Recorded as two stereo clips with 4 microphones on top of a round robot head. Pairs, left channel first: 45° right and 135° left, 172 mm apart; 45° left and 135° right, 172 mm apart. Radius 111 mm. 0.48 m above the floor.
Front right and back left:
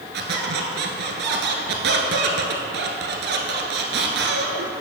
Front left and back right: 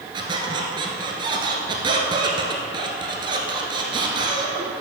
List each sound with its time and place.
0.1 s a squeak: 160° left, 1.3 m